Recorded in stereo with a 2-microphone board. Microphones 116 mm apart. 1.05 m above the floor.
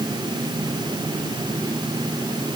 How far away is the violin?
I don't hear a violin.